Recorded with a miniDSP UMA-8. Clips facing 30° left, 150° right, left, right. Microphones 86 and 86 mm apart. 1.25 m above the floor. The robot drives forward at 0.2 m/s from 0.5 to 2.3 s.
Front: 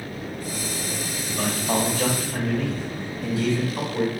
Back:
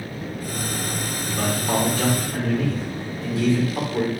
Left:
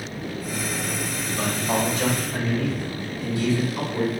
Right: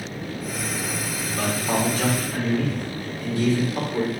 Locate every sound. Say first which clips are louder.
1.2 s a man speaking: back 1 dB, right 1 dB; 130° right, 3 m; by 4.1 s 135° right, 3 m